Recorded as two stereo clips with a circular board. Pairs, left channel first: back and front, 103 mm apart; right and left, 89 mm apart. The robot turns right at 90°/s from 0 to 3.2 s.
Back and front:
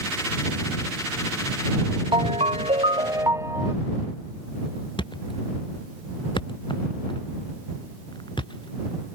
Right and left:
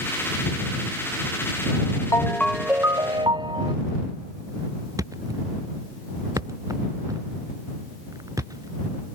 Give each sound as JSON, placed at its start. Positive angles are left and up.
{"t": 2.1, "sound": "a ringtone", "azimuth_deg": -35}
{"t": 5.0, "sound": "a thud", "azimuth_deg": 140}